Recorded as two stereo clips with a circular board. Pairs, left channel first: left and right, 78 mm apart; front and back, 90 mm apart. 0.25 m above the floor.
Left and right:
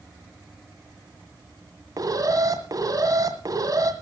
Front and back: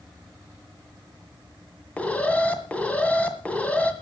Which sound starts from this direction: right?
An alarm, at 2.0 s.